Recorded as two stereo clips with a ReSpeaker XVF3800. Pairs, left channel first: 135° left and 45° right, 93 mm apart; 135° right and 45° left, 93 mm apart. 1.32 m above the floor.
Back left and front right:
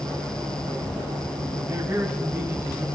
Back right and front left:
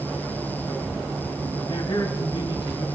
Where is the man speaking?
110° right, 3.5 m.